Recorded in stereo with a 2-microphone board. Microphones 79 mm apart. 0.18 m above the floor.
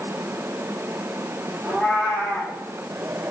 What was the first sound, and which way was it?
A cat meowing, 10° right (ahead or behind).